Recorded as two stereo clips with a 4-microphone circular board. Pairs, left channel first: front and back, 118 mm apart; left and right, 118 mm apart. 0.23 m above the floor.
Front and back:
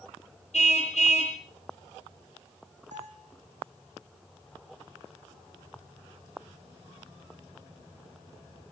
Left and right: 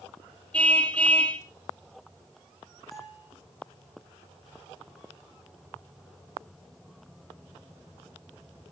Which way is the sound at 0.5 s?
10° left.